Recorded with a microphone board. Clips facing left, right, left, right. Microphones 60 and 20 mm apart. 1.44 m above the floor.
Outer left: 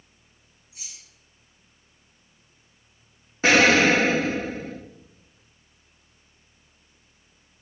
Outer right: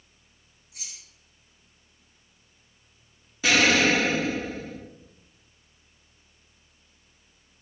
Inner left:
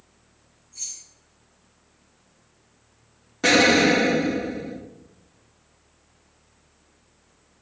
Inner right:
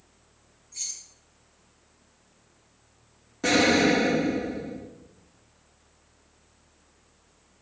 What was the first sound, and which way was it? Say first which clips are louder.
Keys jangling: outer right 1 dB, even; 80° right.